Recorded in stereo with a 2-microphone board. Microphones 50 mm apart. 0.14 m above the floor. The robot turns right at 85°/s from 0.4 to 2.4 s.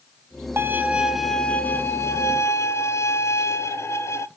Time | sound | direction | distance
0.6 | a violin | 55° right | 0.5 m